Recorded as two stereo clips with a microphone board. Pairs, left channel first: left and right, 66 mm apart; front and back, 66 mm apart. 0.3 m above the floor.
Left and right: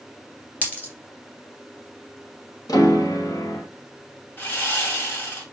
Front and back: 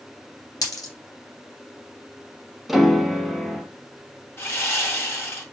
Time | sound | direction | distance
0.6 | a dropped coin | 25° left | 1.9 m
2.7 | a piano | 95° left | 0.8 m
4.4 | sawing | 45° left | 1.9 m